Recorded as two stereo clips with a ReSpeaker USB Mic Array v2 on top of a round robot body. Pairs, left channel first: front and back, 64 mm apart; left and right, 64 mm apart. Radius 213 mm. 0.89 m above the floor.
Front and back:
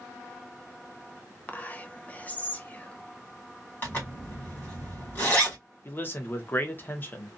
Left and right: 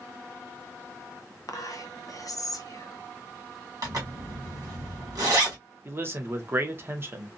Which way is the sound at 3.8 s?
60° right.